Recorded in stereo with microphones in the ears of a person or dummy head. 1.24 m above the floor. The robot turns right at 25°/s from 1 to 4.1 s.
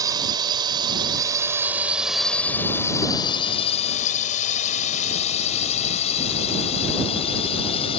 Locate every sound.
0.0 s a drone: 20° right (ahead or behind); by 8.0 s 30° left (ahead or behind)